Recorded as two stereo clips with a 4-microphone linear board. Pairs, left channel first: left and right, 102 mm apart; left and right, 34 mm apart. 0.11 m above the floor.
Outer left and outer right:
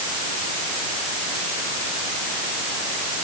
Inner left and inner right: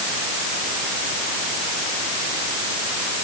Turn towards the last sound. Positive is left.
No sound to turn to.